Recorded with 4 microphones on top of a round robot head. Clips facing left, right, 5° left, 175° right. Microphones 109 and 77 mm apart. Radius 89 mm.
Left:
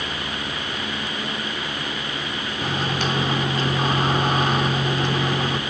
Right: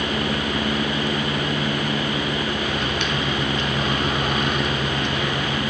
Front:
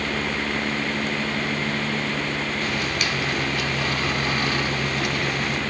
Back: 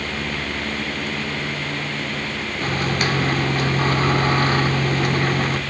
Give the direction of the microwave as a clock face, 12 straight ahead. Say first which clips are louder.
Even, back 3 dB; 7 o'clock.